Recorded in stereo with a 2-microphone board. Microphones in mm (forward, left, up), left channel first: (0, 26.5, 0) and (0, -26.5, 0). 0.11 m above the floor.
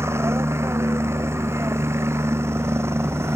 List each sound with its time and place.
0.0 s a helicopter: 60° right (ahead or behind)